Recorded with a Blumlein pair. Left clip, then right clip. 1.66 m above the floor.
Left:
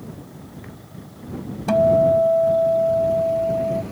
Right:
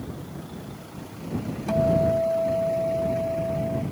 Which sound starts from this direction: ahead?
A guitar, at 1.7 s.